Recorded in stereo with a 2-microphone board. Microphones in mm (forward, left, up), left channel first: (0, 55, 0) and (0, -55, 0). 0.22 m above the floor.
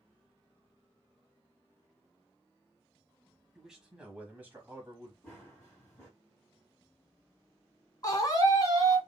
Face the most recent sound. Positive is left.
turn(degrees=35)  # may be behind; listen again after turning